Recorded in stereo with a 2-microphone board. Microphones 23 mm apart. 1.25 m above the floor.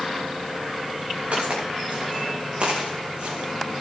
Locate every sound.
1.3 s footsteps: 75° right (ahead or behind), 6.5 m; by 3.8 s 50° right (ahead or behind), 4.5 m